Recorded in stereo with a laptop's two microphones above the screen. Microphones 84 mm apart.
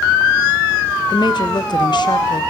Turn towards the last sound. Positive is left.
turn(degrees=60)  # may be behind; listen again after turning